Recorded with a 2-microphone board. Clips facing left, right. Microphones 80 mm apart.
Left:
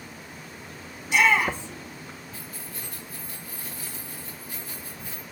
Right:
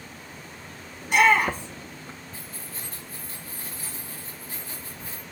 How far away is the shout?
About 3 m.